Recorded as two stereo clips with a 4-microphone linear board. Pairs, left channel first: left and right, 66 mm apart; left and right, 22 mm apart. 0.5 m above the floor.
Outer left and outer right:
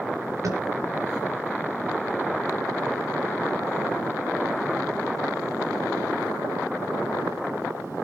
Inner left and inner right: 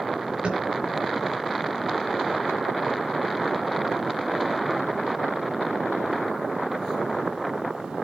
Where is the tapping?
55° right (ahead or behind), 4.5 m.